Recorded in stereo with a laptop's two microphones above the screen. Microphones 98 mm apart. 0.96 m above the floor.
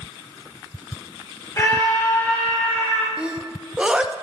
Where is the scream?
30° left (ahead or behind), 1.1 m; by 3.1 s 15° left (ahead or behind), 1.8 m.